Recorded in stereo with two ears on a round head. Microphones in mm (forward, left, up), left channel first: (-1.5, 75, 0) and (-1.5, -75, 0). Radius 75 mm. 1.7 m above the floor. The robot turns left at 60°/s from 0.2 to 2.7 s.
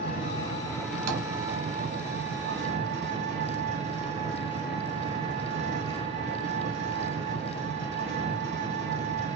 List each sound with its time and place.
0.0 s an engine running: 50° left, 2.5 m; by 9.4 s 100° right, 2.5 m
1.1 s tapping: 55° right (ahead or behind), 3 m; by 1.2 s 60° right (ahead or behind), 3 m